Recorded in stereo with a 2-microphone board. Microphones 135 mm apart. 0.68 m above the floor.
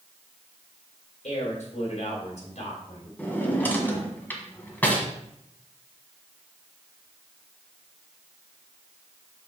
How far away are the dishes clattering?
No dishes clattering in this recording.